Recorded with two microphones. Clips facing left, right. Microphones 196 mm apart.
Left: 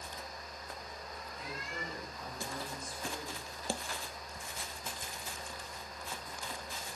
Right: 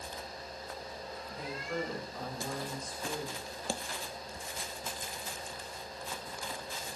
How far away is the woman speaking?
About 9.5 m.